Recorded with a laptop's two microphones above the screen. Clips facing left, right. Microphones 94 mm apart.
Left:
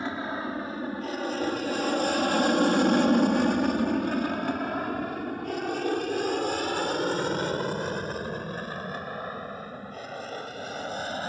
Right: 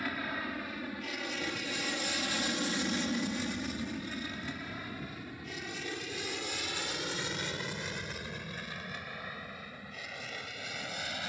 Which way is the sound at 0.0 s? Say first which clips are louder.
Left 6 dB; 25° left (ahead or behind).